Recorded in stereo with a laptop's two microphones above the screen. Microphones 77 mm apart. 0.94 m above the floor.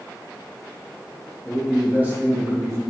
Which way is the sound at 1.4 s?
5° right (ahead or behind).